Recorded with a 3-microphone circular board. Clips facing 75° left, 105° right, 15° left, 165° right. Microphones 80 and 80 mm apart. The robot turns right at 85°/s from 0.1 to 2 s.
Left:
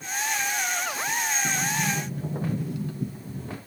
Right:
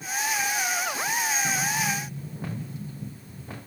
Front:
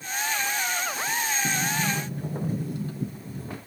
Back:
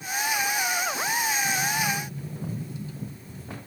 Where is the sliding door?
5° left, 1.1 m; by 3.6 s 50° left, 1.1 m.